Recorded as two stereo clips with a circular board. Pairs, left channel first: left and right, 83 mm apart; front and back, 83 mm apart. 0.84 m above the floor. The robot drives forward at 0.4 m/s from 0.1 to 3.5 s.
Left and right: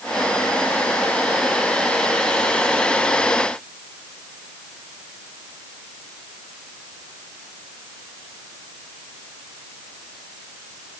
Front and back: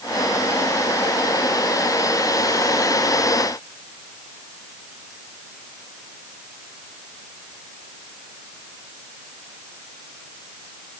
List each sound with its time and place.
Only background noise.